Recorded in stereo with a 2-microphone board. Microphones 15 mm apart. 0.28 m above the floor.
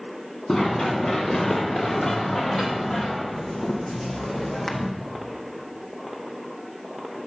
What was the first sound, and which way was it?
Running footsteps, 50° left (ahead or behind).